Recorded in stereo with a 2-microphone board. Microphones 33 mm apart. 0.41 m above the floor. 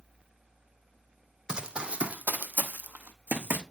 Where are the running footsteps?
25° right (ahead or behind), 0.9 m; by 3.6 s 70° right (ahead or behind), 1.2 m.